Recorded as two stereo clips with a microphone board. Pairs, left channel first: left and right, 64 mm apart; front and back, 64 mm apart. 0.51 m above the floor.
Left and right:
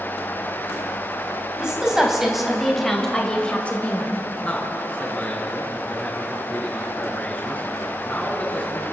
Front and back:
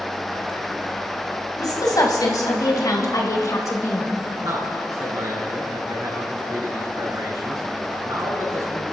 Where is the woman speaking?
15° right, 3 m; by 4.1 s 35° left, 2.0 m.